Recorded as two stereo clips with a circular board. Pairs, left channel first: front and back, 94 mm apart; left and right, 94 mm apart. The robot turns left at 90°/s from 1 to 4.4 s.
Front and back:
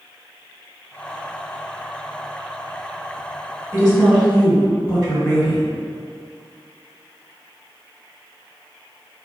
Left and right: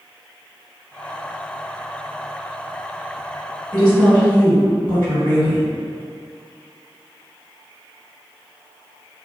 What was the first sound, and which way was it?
A woman speaking, 170° left.